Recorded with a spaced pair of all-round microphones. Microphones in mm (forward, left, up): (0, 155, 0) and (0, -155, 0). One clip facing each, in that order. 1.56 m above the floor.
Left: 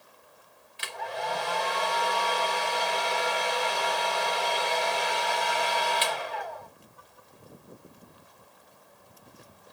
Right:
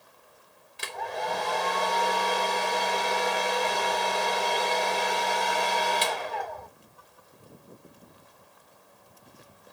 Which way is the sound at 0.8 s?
55° right (ahead or behind).